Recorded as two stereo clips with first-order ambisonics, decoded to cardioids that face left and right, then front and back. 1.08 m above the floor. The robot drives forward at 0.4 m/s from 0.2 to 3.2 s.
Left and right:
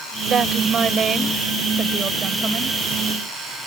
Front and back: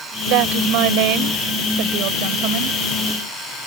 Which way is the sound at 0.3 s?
155° right.